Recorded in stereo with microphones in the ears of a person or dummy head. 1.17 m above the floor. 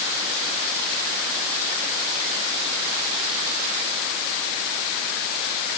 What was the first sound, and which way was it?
Only background noise.